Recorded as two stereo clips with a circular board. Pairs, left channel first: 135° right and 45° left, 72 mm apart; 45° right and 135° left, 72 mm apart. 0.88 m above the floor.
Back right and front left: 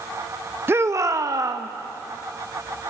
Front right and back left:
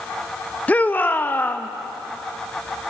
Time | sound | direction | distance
0.7 | a shout | 10° left | 0.6 m